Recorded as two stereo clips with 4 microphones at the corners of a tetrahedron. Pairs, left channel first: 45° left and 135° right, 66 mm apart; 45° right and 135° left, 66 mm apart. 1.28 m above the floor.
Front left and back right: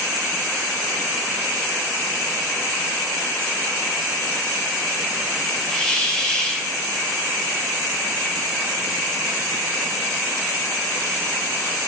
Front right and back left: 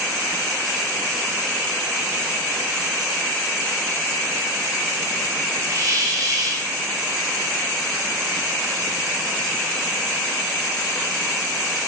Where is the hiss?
120° left, 0.8 m.